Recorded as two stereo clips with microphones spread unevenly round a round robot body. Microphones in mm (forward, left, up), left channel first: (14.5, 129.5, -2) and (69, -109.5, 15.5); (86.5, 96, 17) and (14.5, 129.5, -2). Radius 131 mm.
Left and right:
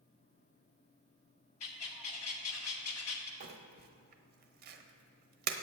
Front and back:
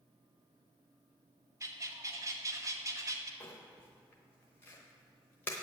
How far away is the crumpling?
About 0.7 m.